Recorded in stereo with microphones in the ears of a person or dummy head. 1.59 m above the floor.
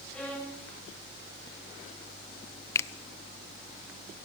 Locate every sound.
0.1 s a violin: 5° left (ahead or behind), 10 m
2.8 s a finger snap: 15° left (ahead or behind), 0.6 m